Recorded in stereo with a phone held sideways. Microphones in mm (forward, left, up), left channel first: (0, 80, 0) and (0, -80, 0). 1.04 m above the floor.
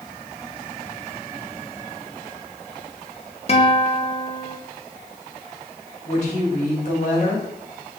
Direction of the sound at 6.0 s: 50° left (ahead or behind).